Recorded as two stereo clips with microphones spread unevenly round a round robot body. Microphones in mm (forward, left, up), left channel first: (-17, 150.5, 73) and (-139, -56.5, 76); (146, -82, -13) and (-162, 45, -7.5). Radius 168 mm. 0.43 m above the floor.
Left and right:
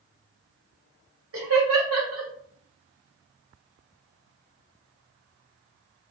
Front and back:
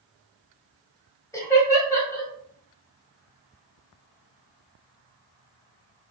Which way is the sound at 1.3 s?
105° right.